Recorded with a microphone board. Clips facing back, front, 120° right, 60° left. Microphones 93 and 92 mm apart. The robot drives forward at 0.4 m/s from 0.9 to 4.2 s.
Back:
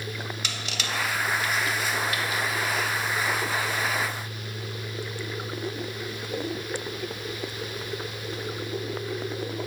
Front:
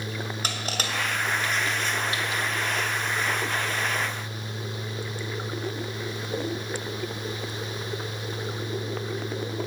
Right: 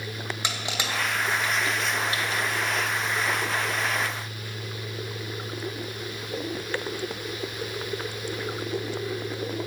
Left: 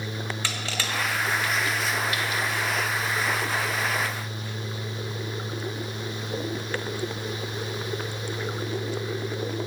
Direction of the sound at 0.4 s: 50° right.